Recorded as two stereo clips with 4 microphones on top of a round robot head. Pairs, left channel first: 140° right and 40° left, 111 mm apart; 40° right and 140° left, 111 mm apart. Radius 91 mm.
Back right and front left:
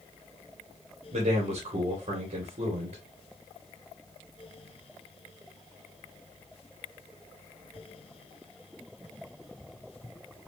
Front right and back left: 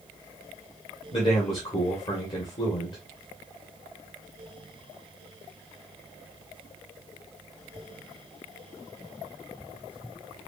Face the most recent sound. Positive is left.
turn(degrees=10)